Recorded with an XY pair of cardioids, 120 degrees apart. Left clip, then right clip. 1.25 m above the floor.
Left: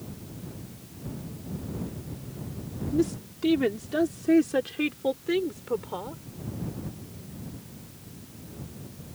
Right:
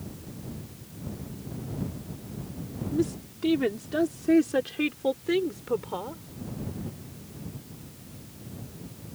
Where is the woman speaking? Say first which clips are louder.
Left 2 dB; 10° left; by 6.2 s 10° right.